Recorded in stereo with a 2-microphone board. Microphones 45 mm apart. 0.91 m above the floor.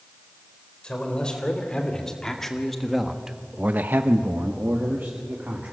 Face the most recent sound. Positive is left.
turn(degrees=-45)  # may be behind; listen again after turning